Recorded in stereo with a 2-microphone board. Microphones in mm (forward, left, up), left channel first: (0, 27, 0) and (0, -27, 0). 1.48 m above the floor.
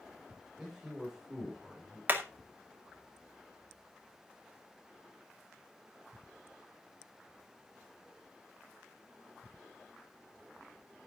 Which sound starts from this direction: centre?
A man speaking, at 0.6 s.